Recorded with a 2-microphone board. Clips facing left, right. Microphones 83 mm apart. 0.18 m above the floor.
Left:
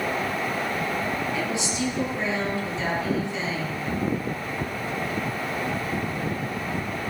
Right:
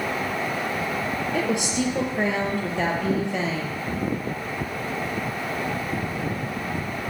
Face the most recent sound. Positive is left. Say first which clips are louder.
# right 3 dB
turn(degrees=-60)  # may be behind; listen again after turning